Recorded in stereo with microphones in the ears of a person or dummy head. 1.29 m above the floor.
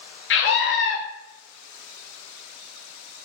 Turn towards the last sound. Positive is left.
turn(degrees=55)  # may be behind; listen again after turning